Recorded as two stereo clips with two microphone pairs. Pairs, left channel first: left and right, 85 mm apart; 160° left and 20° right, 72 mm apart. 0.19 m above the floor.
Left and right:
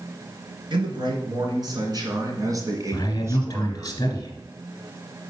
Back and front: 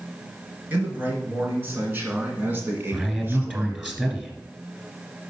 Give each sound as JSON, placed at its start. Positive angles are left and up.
{"t": 0.7, "sound": "a man speaking", "azimuth_deg": -80, "distance_m": 3.0}
{"t": 2.9, "sound": "a man speaking", "azimuth_deg": 45, "distance_m": 1.9}